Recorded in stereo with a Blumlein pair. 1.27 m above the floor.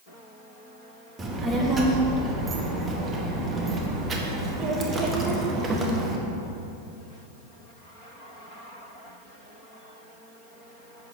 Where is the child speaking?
15° right, 1.1 m.